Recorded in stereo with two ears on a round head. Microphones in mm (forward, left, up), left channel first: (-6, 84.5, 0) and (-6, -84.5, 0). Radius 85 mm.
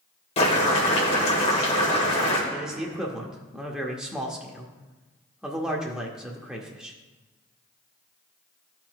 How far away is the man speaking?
About 0.8 m.